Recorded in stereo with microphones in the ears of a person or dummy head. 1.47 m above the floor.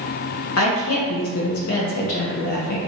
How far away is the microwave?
No microwave in this recording.